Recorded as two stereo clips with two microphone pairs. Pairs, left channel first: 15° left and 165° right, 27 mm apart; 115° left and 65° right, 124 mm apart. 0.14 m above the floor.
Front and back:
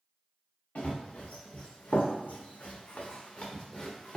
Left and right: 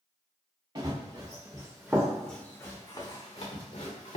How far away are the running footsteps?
About 1.1 m.